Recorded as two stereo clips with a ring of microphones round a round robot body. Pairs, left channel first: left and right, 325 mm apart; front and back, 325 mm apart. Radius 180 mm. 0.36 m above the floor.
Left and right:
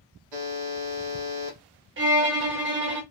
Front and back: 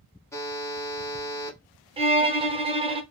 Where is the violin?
115° right, 0.6 m.